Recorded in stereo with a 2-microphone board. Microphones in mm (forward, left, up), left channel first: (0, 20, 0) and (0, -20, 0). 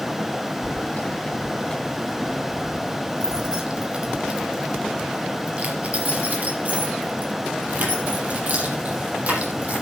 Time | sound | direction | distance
0.6 | keys jangling | 50° left (ahead or behind) | 1.5 m